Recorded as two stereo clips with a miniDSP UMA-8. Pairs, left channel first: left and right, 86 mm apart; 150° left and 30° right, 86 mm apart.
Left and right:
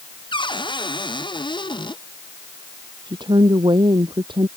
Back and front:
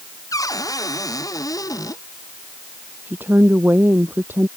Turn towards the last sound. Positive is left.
turn(degrees=-95)